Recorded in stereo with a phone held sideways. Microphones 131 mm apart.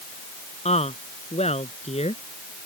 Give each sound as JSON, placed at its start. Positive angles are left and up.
{"t": 0.7, "sound": "a woman speaking", "side_deg": 60}